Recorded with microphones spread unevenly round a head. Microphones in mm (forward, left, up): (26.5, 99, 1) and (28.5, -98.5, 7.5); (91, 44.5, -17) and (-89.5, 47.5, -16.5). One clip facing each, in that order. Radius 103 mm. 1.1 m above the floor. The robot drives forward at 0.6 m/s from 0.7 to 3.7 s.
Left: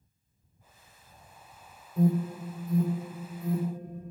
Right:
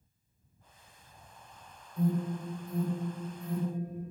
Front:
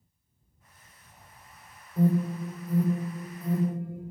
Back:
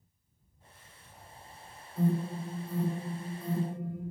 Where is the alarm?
50° left, 3.5 m; by 4.0 s 65° left, 3 m.